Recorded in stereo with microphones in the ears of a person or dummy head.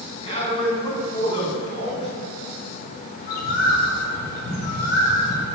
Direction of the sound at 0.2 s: 30° left (ahead or behind).